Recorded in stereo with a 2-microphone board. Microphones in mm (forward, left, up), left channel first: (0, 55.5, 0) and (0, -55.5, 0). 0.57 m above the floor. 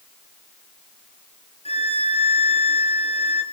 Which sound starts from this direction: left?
A violin, at 1.6 s.